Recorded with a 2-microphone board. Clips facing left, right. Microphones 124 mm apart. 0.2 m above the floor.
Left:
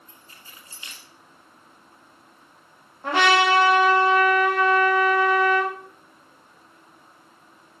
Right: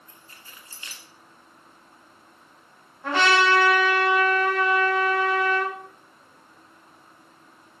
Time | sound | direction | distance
0.1 | keys jangling | 20° left (ahead or behind) | 1.4 m
3.0 | a trumpet | 15° left (ahead or behind) | 3.5 m